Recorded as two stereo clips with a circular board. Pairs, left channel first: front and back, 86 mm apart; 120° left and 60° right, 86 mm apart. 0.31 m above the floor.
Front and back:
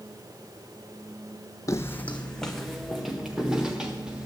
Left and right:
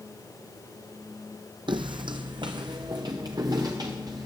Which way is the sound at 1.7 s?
50° right.